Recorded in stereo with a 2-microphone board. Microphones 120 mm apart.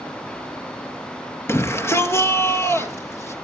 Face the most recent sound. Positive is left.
turn(degrees=20)  # may be behind; listen again after turning